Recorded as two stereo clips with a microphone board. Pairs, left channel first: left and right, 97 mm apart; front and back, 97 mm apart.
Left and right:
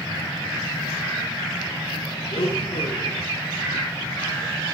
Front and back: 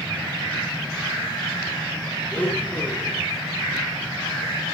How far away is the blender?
About 8.5 m.